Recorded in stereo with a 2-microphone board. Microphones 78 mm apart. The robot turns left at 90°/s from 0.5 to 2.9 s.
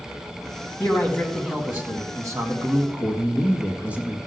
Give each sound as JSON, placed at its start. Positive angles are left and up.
{"t": 0.8, "sound": "a man speaking", "azimuth_deg": 55, "distance_m": 1.7}
{"t": 2.9, "sound": "a man speaking", "side_deg": -15, "distance_m": 1.8}